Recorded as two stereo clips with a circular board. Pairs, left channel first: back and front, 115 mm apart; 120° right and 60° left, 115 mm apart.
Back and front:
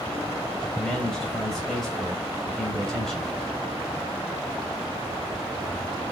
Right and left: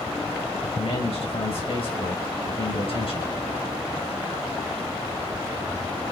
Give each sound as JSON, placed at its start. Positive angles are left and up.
{"t": 0.8, "sound": "a man speaking", "azimuth_deg": -95, "distance_m": 2.5}